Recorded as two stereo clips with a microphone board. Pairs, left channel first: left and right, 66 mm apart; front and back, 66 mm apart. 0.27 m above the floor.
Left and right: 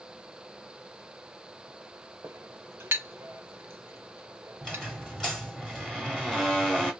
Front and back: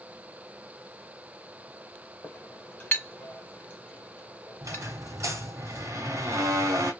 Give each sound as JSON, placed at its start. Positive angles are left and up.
{"t": 2.2, "sound": "a clink", "azimuth_deg": -50, "distance_m": 0.8}
{"t": 4.6, "sound": "a squeak", "azimuth_deg": 175, "distance_m": 1.4}